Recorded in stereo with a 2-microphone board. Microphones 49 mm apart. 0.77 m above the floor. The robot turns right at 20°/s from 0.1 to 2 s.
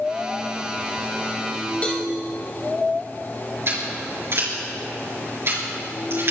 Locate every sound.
1.8 s a cowbell: 25° left (ahead or behind), 3 m; by 2.0 s 30° left (ahead or behind), 3 m
3.7 s scissors: 55° right (ahead or behind), 5 m